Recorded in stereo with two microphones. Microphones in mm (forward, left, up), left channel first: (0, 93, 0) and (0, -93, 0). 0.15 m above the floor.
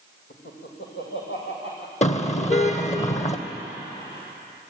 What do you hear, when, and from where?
0.3 s laughter: 70° left (ahead or behind), 7 m
2.0 s a car horn: 40° left (ahead or behind), 2 m